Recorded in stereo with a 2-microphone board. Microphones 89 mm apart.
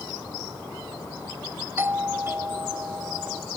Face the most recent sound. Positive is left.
turn(degrees=-25)  # may be behind; listen again after turning